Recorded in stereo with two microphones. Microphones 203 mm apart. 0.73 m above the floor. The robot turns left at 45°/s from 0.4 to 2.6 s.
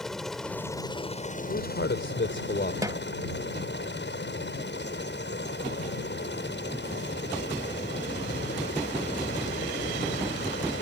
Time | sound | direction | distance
0.0 | a helicopter | straight behind | ?
1.5 | a man speaking | 110° left | ?
2.8 | a snare drum | 15° right (ahead or behind) | ?